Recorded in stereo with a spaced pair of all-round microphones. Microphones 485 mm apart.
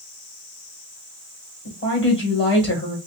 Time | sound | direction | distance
1.6 | a woman speaking | 25° left (ahead or behind) | 1.7 m